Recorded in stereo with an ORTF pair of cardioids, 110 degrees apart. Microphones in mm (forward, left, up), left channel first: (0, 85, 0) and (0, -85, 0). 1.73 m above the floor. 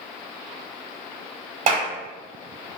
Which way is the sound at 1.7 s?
45° right.